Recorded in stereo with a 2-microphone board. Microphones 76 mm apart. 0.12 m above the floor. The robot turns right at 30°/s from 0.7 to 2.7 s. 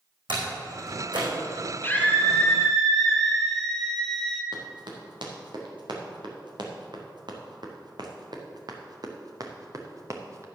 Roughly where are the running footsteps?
Right.